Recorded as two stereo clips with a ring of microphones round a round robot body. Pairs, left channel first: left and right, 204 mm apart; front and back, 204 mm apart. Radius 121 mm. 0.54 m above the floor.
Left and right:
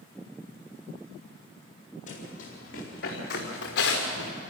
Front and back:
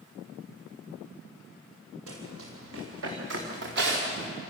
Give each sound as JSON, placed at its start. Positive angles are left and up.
{"t": 2.1, "sound": "running footsteps", "azimuth_deg": 150, "distance_m": 5.0}